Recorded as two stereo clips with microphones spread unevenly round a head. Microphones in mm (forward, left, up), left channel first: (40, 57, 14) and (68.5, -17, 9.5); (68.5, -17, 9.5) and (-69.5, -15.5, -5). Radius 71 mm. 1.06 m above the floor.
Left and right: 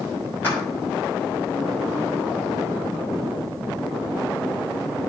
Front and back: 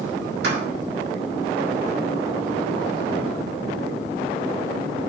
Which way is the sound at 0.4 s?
175° right.